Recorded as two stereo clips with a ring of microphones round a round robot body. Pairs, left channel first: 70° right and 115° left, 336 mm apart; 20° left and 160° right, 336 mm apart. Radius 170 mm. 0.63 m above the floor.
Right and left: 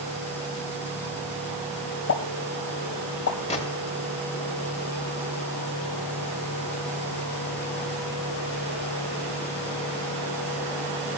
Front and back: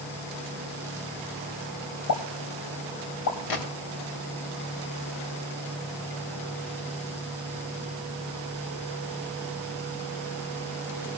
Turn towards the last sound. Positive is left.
turn(degrees=5)